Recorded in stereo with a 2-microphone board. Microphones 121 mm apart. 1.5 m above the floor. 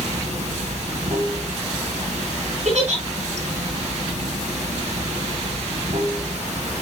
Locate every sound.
0.0 s running water: 75° right (ahead or behind), 1.1 m
2.6 s a giggle: 70° right (ahead or behind), 4.5 m